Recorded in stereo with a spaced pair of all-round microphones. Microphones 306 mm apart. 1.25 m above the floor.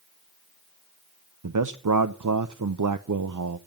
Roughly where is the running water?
No running water in this recording.